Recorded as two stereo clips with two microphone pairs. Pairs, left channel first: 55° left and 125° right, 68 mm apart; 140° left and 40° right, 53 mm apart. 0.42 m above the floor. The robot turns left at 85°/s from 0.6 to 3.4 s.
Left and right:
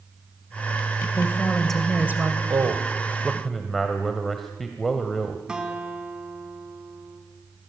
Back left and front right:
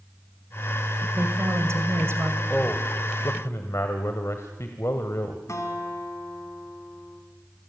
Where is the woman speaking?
20° left, 2 m; by 2.4 s 90° right, 2 m.